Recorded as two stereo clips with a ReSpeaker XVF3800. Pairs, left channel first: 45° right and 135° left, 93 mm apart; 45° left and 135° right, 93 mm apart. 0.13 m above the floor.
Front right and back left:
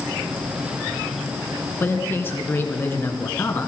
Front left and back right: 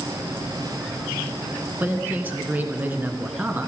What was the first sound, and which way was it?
A man speaking, 85° right.